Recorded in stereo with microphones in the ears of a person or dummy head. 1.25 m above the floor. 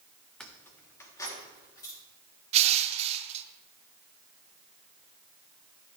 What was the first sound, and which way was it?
Keys jangling, 5° left (ahead or behind).